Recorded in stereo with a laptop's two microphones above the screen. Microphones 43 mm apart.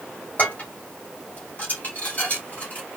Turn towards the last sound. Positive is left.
turn(degrees=35)  # may be behind; listen again after turning